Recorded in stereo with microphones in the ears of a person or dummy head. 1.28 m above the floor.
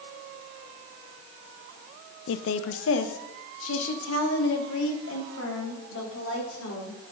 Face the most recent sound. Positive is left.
turn(degrees=90)